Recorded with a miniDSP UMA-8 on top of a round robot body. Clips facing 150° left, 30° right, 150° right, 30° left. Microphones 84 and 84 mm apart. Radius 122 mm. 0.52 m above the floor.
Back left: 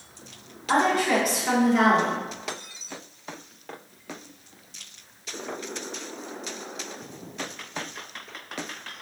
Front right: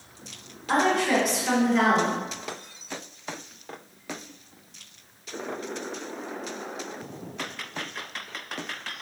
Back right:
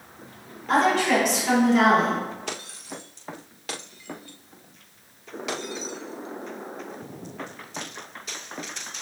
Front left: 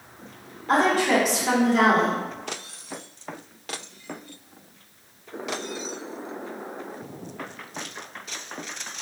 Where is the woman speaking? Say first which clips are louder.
Back left 1 dB, even; 65° left, 1.8 m.